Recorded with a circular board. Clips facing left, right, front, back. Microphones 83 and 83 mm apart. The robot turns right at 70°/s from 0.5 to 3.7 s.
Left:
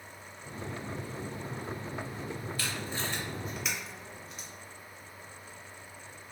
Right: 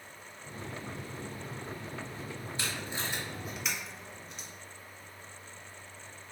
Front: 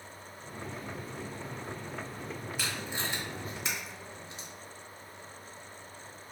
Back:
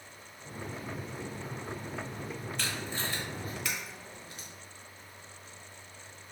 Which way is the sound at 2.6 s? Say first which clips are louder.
Right 1 dB, even; 75° right.